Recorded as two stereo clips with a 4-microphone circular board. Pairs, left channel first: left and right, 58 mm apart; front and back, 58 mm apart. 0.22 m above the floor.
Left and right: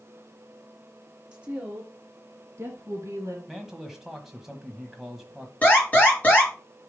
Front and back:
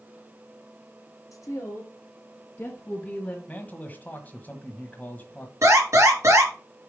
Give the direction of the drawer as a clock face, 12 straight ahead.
No drawer in this recording.